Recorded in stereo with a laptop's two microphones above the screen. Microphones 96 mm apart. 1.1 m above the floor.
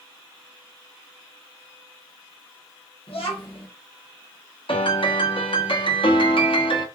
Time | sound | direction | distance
3.1 | a child speaking | 75° left (ahead or behind) | 1.2 m
4.7 | a piano | 65° left (ahead or behind) | 0.8 m